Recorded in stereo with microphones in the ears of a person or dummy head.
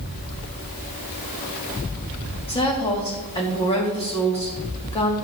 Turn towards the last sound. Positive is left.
turn(degrees=25)  # may be behind; listen again after turning